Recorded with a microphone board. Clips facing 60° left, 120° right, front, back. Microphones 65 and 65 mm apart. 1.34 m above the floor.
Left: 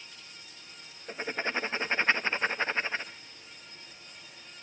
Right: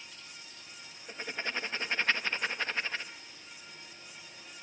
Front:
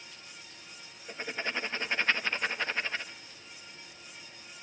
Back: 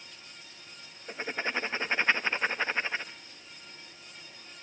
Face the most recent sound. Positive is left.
turn(degrees=115)